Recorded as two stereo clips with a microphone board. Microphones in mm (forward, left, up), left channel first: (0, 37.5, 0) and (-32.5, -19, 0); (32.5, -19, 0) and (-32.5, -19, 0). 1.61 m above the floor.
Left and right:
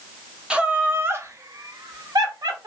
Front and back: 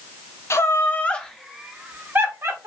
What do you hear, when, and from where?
0.5 s laughter: 45° right, 0.7 m; by 2.7 s 130° right, 1.0 m